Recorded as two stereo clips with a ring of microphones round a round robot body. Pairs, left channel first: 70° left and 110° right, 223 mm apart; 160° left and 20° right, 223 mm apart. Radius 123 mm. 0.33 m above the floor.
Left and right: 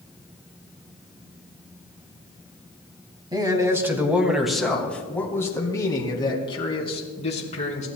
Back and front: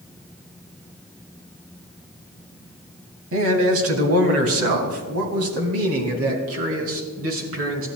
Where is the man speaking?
40° right, 2.5 m; by 7.9 s 5° left, 4 m.